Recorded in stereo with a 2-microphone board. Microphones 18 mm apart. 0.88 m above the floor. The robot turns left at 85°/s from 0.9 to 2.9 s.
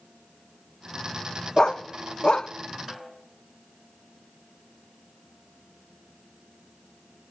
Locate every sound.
1.6 s a dog barking: 40° left (ahead or behind), 0.5 m; by 2.5 s 50° left (ahead or behind), 0.5 m
2.9 s a snare drum: 15° right (ahead or behind), 3.5 m